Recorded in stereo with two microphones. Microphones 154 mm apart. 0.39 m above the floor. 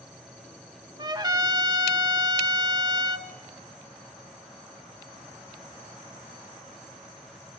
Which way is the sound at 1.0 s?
30° right (ahead or behind).